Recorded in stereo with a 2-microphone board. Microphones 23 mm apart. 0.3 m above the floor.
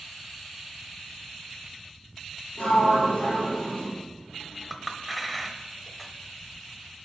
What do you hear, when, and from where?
2.6 s a sliding door: 70° left (ahead or behind), 3.5 m
4.7 s a clink: centre (ahead or behind), 0.7 m